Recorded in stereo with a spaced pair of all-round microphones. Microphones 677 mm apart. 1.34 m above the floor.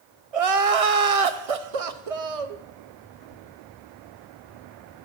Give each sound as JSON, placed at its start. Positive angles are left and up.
{"t": 0.3, "sound": "crying", "side_deg": -55, "distance_m": 0.8}